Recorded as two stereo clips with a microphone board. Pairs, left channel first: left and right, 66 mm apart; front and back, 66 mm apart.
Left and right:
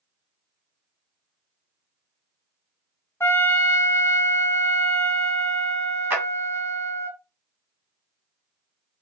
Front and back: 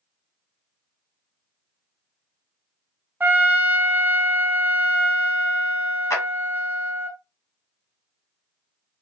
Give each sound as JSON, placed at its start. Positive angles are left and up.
{"t": 3.2, "sound": "a trumpet", "azimuth_deg": 125, "distance_m": 0.5}
{"t": 6.1, "sound": "a clap", "azimuth_deg": -35, "distance_m": 1.8}